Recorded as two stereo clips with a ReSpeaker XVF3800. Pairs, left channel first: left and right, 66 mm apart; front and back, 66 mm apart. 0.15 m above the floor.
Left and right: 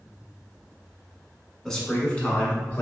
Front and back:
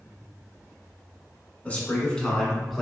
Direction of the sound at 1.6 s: 20° left.